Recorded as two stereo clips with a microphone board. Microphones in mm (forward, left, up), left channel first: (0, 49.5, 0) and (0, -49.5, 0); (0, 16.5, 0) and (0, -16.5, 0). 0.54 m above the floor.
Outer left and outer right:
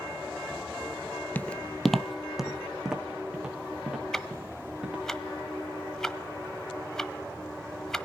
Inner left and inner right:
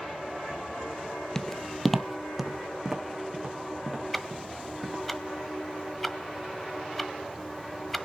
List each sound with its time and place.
1.4 s footsteps: 20° left (ahead or behind), 0.5 m; by 5.0 s 10° right (ahead or behind), 5 m
4.1 s ticking: 5° left (ahead or behind), 1.1 m